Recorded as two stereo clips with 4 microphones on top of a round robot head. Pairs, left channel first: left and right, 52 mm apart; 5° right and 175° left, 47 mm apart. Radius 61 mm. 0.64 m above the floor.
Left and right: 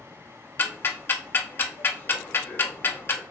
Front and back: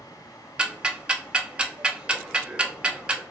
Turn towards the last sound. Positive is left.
turn(degrees=115)